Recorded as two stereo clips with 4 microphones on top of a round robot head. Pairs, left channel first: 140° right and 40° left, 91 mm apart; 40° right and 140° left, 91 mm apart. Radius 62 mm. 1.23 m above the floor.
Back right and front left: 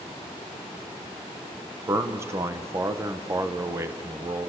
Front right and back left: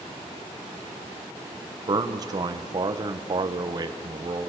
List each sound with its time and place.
1.9 s a man speaking: 100° left, 1.1 m